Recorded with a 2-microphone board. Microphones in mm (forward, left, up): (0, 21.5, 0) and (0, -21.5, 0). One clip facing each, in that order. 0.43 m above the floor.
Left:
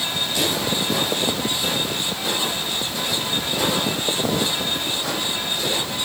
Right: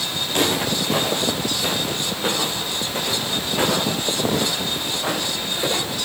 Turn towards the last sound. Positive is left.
turn(degrees=-25)  # may be behind; listen again after turning